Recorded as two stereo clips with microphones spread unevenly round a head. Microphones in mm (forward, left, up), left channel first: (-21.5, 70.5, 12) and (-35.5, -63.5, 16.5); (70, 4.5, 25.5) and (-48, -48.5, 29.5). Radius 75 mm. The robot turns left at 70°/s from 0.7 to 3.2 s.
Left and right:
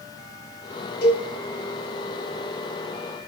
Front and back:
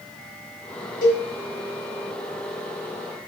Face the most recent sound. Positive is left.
turn(degrees=-105)